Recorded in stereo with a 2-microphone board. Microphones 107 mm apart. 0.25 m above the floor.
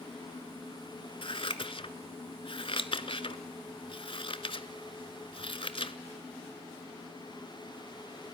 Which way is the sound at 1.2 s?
55° left (ahead or behind).